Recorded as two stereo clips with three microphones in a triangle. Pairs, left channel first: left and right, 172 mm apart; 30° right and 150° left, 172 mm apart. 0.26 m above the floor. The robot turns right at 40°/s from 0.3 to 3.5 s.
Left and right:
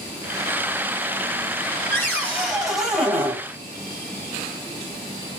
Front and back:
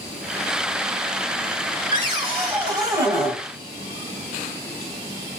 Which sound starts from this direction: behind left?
A cupboard door, at 1.9 s.